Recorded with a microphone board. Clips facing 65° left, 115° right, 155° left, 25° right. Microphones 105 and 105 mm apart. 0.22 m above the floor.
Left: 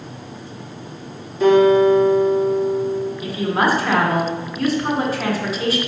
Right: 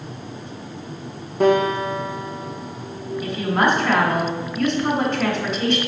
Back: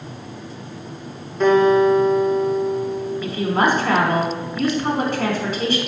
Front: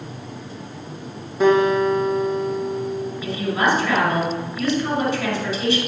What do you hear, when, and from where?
1.4 s a guitar: 105° right, 3 m
3.2 s a woman speaking: 150° left, 2.5 m